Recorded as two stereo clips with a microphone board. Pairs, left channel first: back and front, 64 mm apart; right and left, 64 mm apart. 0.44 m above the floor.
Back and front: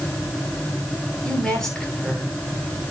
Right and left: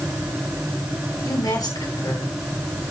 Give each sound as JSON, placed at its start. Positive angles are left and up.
{"t": 1.2, "sound": "a woman speaking", "azimuth_deg": -100, "distance_m": 8.5}